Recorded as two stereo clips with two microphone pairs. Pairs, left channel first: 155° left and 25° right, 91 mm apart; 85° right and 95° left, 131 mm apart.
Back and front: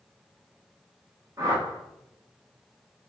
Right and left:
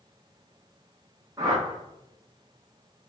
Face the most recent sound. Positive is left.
turn(degrees=30)